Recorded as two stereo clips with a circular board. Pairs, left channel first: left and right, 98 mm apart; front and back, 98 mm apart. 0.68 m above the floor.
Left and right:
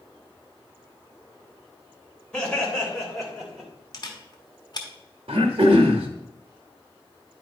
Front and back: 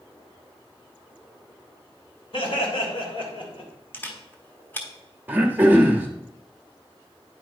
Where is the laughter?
10° left, 3 m; by 3.7 s 5° right, 2.5 m.